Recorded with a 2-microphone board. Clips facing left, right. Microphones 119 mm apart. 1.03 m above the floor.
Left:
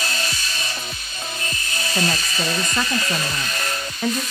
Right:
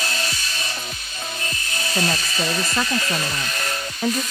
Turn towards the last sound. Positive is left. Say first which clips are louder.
# even
turn(degrees=-5)  # may be behind; listen again after turning